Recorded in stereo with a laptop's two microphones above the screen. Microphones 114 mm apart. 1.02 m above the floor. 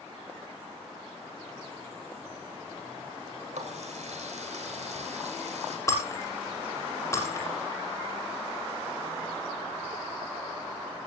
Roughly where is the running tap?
Right.